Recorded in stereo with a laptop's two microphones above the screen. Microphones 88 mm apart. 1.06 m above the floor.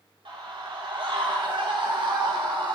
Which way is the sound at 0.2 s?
85° right.